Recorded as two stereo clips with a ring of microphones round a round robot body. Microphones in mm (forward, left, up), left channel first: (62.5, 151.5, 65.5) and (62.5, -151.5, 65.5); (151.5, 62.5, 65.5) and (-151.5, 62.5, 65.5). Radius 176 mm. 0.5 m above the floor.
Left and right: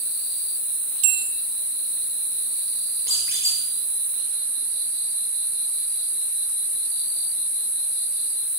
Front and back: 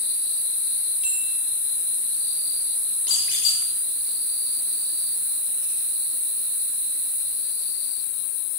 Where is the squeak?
10° right, 6 m.